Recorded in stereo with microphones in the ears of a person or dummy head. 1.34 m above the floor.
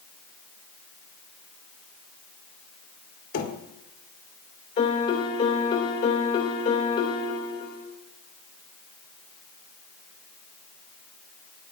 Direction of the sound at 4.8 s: 35° left (ahead or behind).